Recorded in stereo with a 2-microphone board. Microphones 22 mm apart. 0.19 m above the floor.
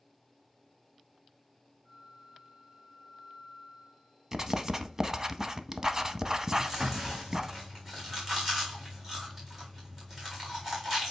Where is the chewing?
20° right (ahead or behind), 3.5 m.